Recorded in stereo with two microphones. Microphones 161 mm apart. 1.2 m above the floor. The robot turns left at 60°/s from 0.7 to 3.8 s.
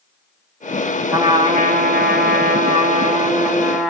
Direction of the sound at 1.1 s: 20° right.